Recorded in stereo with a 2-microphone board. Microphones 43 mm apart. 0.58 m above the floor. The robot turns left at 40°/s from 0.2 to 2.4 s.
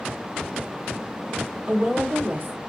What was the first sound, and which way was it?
A woman speaking, 30° right (ahead or behind).